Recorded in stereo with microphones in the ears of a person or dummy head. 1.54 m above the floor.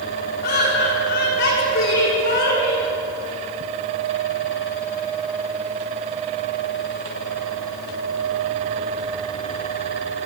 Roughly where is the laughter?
Left.